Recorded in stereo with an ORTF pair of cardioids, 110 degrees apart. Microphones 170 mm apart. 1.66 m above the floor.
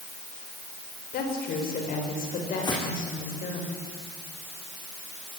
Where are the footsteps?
25° left, 8 m.